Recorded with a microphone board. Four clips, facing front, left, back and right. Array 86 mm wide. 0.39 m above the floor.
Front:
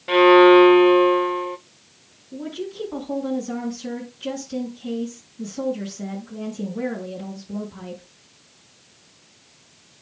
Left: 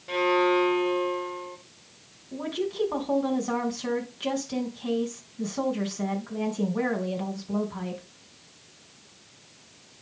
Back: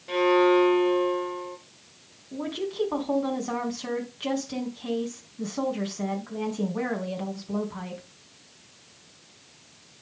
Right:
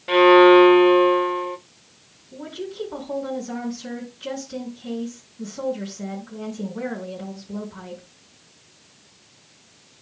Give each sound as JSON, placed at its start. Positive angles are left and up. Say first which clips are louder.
{"t": 0.1, "sound": "a violin", "louder": "right 12 dB, front 9 dB", "azimuth_deg": -40, "distance_m": 0.5}
{"t": 2.3, "sound": "a woman speaking", "louder": "left 3 dB, even", "azimuth_deg": 140, "distance_m": 4.0}